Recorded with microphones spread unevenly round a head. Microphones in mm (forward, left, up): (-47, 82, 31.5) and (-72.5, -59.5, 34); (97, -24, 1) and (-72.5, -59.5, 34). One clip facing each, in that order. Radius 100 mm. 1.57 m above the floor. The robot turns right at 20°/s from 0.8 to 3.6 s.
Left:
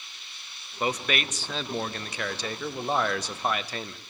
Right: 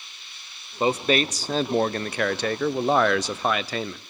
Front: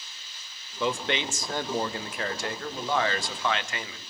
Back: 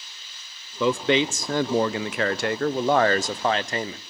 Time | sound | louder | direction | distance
0.8 | a man speaking | right 7 dB, back 8 dB | 165° right | 0.8 m